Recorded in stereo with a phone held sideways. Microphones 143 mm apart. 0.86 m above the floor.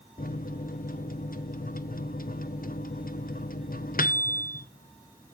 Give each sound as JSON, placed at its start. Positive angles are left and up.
{"t": 0.2, "sound": "a microwave", "side_deg": 80, "distance_m": 0.6}